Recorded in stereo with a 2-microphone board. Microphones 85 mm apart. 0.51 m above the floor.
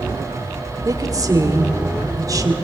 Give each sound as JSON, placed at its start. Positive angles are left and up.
{"t": 0.8, "sound": "a woman speaking", "side_deg": -45, "distance_m": 1.6}